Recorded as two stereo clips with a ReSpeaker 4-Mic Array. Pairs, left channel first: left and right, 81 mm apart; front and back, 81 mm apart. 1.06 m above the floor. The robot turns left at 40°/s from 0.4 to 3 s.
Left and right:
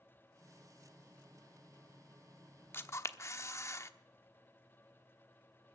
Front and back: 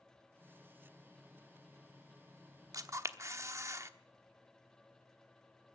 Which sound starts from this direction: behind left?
A camera shutter, at 2.7 s.